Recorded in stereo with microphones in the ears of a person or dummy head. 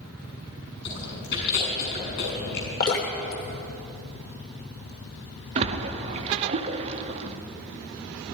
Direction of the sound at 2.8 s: 45° left (ahead or behind).